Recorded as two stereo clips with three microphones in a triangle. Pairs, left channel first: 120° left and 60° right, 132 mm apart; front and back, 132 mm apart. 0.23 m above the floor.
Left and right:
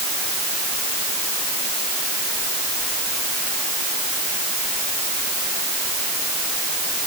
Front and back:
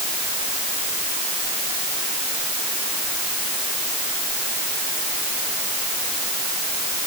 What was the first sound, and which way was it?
Only background noise.